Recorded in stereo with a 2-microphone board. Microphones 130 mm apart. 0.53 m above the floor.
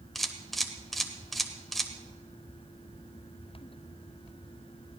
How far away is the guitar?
No guitar in this recording.